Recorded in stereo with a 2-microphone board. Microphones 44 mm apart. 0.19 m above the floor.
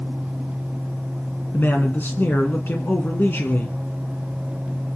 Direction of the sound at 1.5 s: 50° left (ahead or behind).